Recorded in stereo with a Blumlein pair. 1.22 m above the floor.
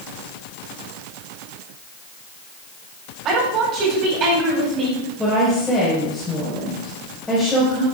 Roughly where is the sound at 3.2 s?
Ahead right.